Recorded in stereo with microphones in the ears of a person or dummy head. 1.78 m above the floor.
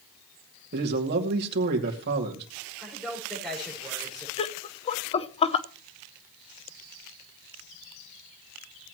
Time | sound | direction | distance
0.7 | a man speaking | 55° right (ahead or behind) | 2.5 m
2.8 | a man speaking | centre (ahead or behind) | 5.5 m
4.4 | laughter | 30° left (ahead or behind) | 0.7 m